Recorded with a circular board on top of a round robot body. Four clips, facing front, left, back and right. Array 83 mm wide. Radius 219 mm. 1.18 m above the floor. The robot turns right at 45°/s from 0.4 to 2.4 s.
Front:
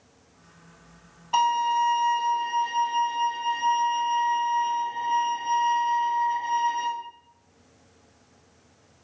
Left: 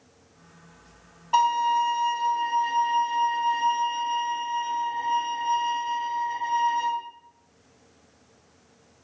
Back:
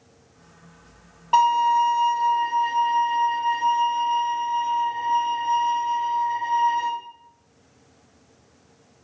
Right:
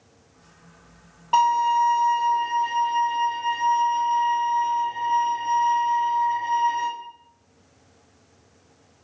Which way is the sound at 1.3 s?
140° right.